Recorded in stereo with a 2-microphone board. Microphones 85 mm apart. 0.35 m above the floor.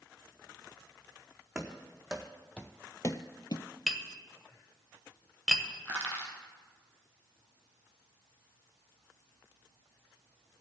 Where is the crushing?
15° left (ahead or behind), 2 m.